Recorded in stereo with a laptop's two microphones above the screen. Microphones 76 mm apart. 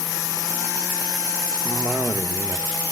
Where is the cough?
25° right (ahead or behind), 1.7 m.